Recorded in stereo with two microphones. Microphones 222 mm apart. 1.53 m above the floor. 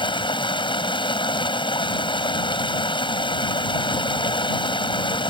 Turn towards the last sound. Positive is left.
turn(degrees=20)  # may be behind; listen again after turning